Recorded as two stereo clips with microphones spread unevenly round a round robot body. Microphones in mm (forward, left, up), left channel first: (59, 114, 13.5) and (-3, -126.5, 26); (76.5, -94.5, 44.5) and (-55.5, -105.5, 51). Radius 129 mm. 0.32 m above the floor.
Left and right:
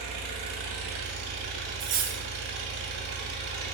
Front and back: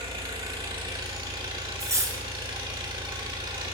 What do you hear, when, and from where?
0.0 s an engine running: 120° right, 1.4 m
1.8 s cutlery clinking: 120° right, 0.5 m